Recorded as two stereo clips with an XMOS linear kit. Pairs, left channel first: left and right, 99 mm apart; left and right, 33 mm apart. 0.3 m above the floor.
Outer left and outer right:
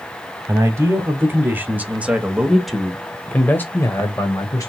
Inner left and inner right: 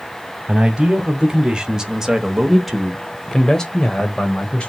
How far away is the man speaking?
About 1.6 m.